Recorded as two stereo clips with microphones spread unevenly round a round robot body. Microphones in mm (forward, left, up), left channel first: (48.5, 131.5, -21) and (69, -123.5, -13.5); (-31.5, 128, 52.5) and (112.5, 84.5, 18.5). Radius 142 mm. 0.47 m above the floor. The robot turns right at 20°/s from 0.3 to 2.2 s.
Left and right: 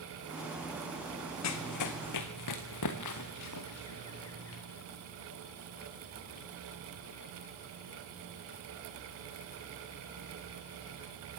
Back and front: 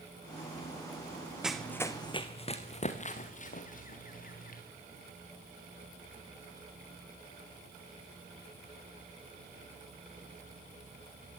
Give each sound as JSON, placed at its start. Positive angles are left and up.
{"t": 1.4, "sound": "running footsteps", "azimuth_deg": 70, "distance_m": 2.0}